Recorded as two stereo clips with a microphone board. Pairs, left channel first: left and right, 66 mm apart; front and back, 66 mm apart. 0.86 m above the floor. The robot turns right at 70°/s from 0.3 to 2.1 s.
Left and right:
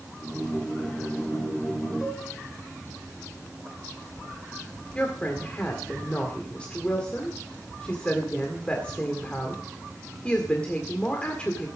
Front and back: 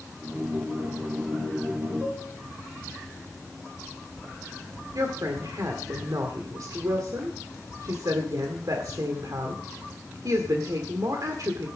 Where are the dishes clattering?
110° left, 6 m; by 2.3 s 120° left, 6 m.